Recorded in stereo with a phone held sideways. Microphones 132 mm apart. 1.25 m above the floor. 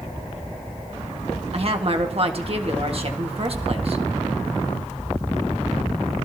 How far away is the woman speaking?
About 1.6 m.